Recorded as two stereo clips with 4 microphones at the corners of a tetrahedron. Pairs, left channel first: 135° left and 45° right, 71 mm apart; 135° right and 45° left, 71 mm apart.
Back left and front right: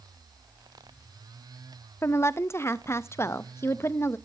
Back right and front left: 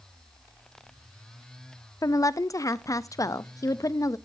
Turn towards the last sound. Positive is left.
turn(degrees=-175)